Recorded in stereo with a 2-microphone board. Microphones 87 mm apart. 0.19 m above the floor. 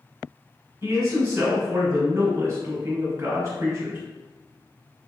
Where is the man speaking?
35° right (ahead or behind), 1.4 m.